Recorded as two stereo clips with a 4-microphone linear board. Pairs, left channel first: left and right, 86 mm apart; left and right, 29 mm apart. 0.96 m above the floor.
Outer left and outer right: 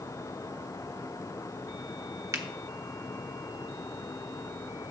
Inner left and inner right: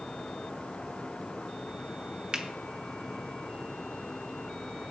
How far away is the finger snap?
About 0.9 m.